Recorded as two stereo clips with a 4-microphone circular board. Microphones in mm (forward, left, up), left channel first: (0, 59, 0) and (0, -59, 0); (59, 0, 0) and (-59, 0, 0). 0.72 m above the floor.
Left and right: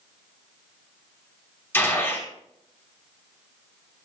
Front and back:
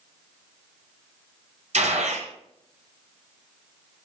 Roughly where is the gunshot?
Behind.